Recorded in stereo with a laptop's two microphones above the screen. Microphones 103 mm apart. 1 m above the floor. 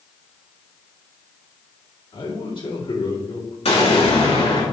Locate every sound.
2.1 s a man speaking: 55° left (ahead or behind), 2.5 m
3.6 s an explosion: 75° left (ahead or behind), 2 m